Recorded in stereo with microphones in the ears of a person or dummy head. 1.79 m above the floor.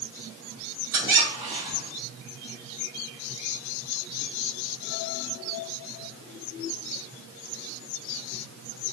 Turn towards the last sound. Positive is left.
turn(degrees=-25)  # may be behind; listen again after turning